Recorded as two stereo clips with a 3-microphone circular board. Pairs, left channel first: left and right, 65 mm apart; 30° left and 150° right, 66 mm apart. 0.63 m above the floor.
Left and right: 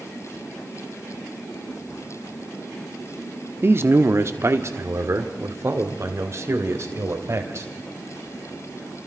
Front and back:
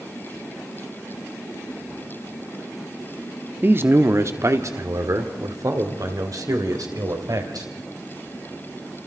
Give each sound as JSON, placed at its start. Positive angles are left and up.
{"t": 3.6, "sound": "a man speaking", "azimuth_deg": -115, "distance_m": 1.1}